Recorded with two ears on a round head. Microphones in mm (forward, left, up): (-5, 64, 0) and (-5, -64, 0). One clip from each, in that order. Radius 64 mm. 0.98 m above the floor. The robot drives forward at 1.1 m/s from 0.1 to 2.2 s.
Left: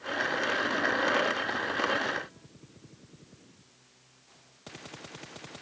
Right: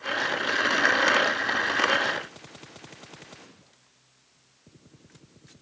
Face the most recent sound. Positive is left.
No sound to turn to.